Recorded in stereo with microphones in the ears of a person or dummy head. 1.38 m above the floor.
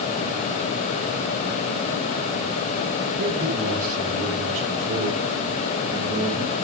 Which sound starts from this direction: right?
A man speaking, at 3.2 s.